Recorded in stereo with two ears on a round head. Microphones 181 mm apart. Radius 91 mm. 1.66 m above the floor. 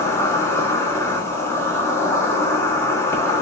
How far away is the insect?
About 1.1 m.